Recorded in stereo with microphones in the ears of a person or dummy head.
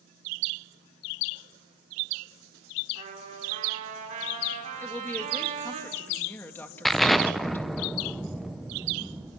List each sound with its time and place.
3.0 s a trumpet: 40° right (ahead or behind), 5 m
4.8 s a woman speaking: 10° left (ahead or behind), 2 m
6.8 s an explosion: centre (ahead or behind), 0.7 m